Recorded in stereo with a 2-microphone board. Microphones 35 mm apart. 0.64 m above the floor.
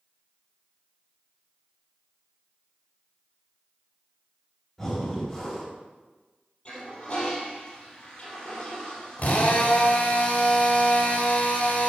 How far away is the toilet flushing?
About 4 m.